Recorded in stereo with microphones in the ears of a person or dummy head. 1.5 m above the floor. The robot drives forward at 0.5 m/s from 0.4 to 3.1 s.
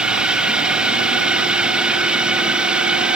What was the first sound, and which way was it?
A drone, centre (ahead or behind).